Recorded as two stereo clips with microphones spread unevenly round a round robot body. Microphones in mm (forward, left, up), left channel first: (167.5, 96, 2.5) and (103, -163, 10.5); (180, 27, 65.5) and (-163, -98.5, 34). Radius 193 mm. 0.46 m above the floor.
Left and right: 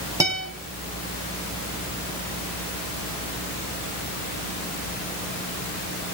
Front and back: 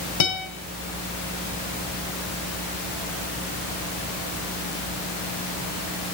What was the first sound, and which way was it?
A guitar, 25° right.